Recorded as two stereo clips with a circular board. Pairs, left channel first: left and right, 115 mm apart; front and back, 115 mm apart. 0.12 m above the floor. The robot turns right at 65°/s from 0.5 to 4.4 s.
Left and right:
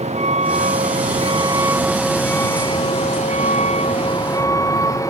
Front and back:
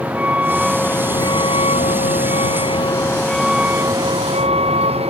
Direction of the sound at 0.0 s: 100° right.